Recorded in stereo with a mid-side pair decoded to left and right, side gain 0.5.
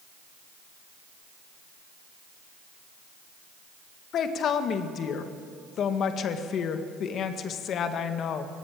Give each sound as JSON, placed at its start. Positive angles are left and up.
{"t": 4.1, "sound": "a woman speaking", "azimuth_deg": 60, "distance_m": 1.8}